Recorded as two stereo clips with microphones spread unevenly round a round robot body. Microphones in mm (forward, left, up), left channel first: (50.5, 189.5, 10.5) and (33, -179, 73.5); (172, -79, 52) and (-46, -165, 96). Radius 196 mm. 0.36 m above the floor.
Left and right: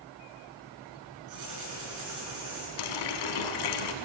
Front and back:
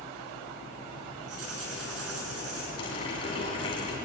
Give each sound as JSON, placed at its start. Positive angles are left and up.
{"t": 1.3, "sound": "writing", "azimuth_deg": -140, "distance_m": 6.5}
{"t": 2.8, "sound": "a running tap", "azimuth_deg": 90, "distance_m": 2.0}